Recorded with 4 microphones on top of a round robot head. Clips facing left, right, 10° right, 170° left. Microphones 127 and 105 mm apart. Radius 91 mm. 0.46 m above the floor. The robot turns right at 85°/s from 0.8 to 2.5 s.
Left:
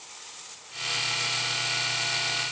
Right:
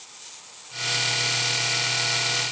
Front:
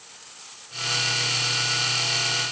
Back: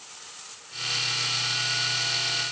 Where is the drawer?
No drawer in this recording.